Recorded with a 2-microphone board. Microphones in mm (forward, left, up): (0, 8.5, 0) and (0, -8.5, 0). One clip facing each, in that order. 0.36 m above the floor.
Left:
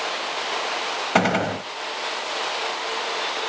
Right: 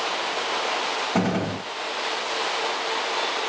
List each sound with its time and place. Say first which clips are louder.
1.1 s a gunshot: left 4 dB; 60° left (ahead or behind), 0.9 m